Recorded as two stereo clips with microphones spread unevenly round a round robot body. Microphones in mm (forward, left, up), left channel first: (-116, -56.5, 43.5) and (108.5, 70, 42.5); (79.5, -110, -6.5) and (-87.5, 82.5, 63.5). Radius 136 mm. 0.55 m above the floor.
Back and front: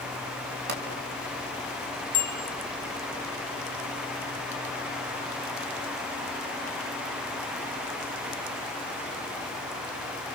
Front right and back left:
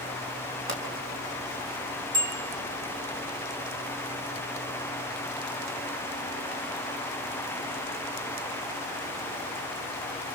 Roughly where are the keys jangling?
I don't hear keys jangling.